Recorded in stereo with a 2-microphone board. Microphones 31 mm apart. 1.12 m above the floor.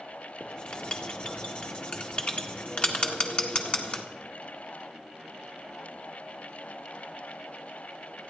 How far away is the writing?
About 1.7 m.